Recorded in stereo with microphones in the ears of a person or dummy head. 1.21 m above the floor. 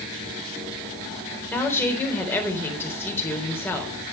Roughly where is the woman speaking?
Centre.